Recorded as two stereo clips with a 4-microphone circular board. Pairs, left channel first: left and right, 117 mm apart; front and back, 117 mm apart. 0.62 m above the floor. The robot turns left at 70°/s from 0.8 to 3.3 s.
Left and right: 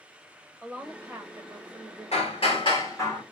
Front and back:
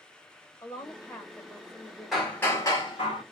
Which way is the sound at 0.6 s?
25° right.